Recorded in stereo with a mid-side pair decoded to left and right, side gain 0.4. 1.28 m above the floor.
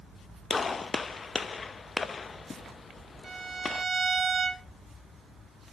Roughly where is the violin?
Ahead right.